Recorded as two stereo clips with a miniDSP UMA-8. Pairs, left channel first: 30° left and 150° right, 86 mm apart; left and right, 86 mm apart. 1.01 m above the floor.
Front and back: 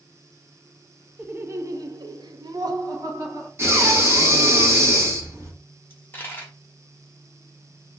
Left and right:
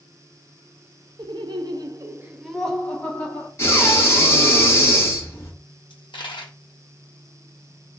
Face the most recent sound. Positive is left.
turn(degrees=95)